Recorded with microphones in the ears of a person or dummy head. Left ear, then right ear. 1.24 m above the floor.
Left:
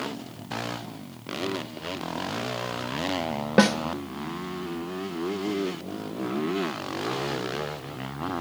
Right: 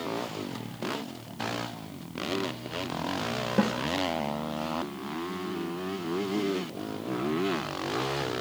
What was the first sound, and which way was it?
A snare drum, 50° left (ahead or behind).